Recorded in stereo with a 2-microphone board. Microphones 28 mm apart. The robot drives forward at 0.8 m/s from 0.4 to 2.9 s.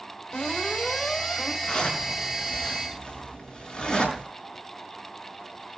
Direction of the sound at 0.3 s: 25° left (ahead or behind).